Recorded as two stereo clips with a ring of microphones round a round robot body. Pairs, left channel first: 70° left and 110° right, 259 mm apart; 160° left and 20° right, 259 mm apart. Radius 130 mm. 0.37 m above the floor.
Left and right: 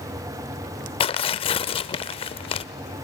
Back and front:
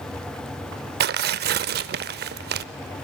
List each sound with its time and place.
1.0 s tearing paper: 5° left, 0.5 m